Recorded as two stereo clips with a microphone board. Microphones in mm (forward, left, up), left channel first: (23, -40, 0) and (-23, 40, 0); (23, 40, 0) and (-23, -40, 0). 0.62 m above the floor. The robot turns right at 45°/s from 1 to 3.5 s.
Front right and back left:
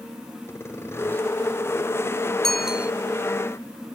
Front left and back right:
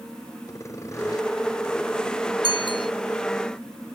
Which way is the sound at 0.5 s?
5° left.